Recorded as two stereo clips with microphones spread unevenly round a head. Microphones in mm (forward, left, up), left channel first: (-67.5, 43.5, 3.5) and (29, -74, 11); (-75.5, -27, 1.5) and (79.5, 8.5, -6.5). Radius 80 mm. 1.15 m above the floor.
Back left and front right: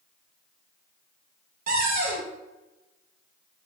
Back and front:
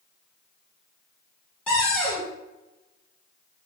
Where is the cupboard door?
85° right, 0.9 m.